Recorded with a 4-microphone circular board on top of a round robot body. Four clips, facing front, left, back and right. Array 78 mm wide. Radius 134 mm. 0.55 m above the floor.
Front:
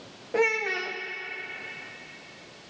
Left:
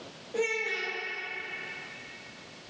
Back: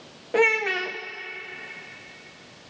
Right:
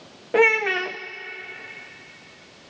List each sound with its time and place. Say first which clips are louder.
0.3 s a child speaking: right 12 dB, back 4 dB; 100° right, 0.6 m